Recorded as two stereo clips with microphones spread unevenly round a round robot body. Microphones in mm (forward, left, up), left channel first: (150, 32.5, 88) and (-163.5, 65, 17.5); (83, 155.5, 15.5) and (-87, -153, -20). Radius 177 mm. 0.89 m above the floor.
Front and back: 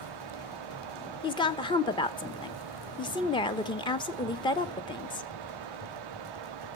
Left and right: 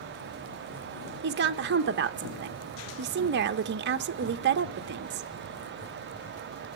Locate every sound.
1.2 s a woman speaking: 90° right, 0.7 m